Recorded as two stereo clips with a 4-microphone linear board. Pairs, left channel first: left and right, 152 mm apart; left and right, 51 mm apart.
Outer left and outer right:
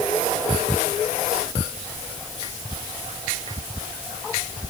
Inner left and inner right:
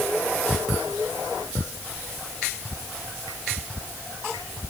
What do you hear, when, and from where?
Only background noise.